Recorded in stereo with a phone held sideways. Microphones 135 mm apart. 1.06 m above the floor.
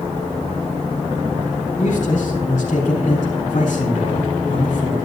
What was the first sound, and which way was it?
A man speaking, 80° left.